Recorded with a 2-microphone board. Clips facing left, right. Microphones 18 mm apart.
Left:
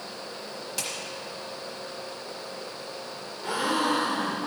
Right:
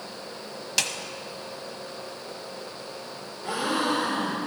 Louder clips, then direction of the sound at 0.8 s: Right 8 dB; 50° right (ahead or behind).